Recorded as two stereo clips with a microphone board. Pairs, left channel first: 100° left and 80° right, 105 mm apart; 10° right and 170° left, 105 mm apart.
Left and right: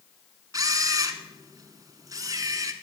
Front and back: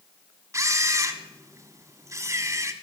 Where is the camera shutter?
130° right, 1.0 m.